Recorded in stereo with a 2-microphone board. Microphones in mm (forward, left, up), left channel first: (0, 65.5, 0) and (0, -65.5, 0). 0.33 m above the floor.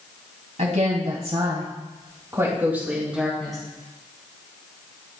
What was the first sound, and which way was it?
A woman speaking, 65° right (ahead or behind).